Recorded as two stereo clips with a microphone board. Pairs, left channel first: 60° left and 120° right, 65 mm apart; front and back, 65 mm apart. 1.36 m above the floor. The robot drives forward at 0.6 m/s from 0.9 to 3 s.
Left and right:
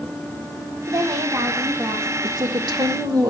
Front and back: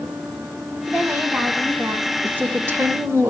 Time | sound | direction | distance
0.9 | a woman speaking | 120° right | 1.9 m
2.2 | a woman speaking | 115° right | 1.4 m